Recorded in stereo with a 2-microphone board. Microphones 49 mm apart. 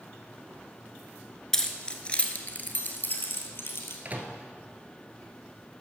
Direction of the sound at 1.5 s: 10° left (ahead or behind).